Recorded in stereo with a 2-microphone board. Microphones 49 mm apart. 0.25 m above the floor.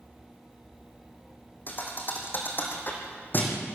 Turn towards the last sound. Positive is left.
turn(degrees=40)  # may be behind; listen again after turning